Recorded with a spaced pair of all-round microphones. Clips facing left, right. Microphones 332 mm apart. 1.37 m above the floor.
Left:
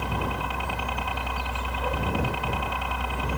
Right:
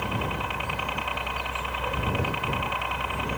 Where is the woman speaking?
No woman speaking in this recording.